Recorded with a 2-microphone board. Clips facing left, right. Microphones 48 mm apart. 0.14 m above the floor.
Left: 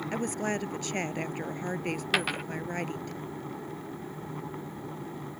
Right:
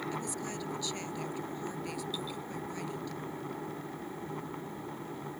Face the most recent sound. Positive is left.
turn(degrees=80)